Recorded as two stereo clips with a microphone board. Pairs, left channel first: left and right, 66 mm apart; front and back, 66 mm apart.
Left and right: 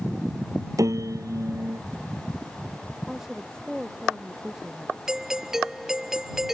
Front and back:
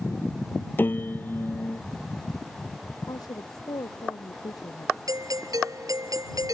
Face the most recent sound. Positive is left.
turn(degrees=-175)